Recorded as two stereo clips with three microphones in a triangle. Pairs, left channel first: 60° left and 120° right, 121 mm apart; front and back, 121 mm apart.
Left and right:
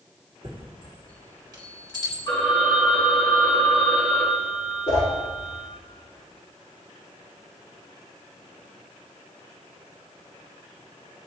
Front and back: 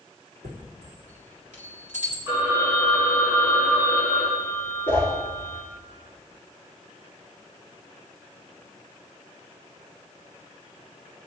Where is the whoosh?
75° left, 4.5 m.